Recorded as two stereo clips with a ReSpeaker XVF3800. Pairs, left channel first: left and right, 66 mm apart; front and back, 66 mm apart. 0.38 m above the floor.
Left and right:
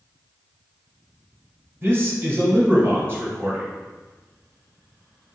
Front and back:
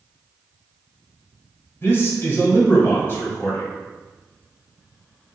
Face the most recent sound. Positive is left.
turn(degrees=-45)